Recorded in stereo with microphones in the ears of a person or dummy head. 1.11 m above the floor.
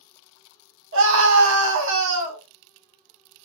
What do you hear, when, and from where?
0.9 s a scream: 75° right (ahead or behind), 1.4 m